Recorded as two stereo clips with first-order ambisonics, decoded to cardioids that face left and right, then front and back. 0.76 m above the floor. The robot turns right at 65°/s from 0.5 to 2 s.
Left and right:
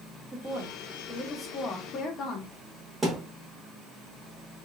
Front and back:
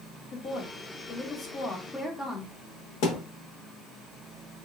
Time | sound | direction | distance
0.3 | a woman speaking | 30° right | 0.8 m
3.0 | a thud | 15° right | 1.0 m